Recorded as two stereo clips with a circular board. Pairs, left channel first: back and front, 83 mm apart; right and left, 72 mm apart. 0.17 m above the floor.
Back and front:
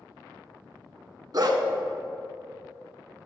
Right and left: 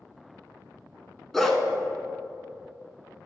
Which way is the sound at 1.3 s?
5° right.